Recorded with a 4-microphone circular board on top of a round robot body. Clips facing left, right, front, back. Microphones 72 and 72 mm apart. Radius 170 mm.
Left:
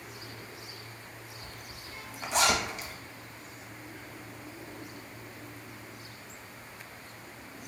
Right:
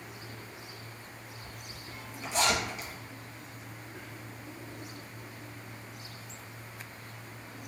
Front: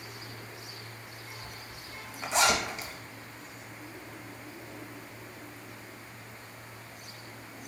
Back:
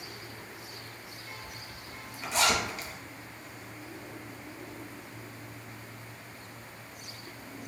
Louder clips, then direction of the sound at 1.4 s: Even, even; 65° left.